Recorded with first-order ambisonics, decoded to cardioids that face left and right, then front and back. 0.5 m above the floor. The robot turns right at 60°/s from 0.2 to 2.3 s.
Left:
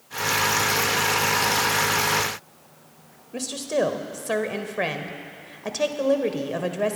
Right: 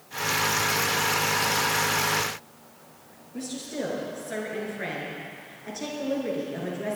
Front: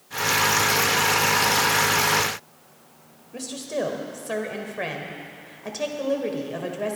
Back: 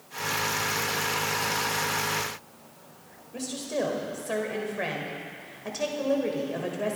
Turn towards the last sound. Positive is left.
turn(degrees=80)